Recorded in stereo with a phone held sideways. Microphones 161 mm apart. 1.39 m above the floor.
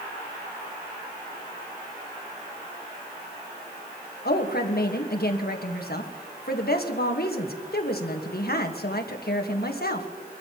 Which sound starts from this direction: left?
A woman speaking, at 4.2 s.